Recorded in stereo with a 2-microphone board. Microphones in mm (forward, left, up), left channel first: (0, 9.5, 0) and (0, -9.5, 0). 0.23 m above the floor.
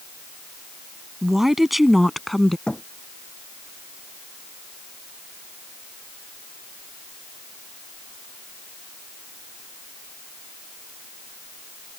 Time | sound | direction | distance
1.2 | a woman speaking | 25° right (ahead or behind) | ?
2.7 | a thud | 65° left (ahead or behind) | ?